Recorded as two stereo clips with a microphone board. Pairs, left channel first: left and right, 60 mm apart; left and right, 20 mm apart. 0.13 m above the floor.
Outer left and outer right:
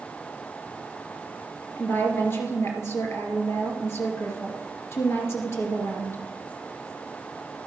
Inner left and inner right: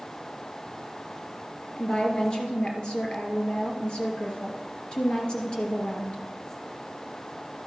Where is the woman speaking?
45° left (ahead or behind), 2.5 m.